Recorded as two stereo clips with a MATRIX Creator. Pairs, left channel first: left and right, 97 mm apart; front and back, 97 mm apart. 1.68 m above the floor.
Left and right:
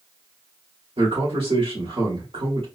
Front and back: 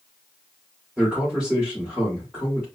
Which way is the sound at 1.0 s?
100° right.